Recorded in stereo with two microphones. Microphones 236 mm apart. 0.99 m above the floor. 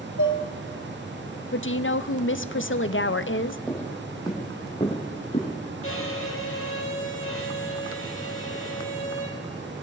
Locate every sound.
0.2 s dishes clattering: 80° left, 3 m
1.5 s a woman speaking: 60° left (ahead or behind), 0.5 m
3.7 s footsteps: 5° left (ahead or behind), 1.8 m; by 5.5 s 30° left (ahead or behind), 3.5 m
5.8 s a violin: 60° left (ahead or behind), 1.6 m